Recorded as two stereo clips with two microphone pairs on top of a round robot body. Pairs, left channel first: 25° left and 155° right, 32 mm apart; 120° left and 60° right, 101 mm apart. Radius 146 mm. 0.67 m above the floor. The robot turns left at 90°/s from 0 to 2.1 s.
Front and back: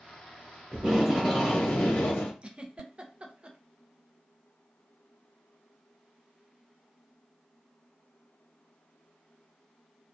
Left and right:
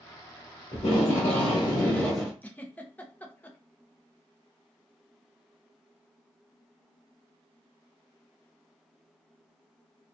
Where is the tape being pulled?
160° left, 1.1 m; by 2.3 s 35° left, 1.1 m.